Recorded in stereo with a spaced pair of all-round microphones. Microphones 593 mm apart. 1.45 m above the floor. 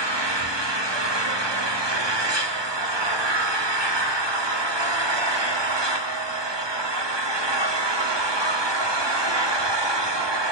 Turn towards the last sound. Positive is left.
turn(degrees=-45)  # may be behind; listen again after turning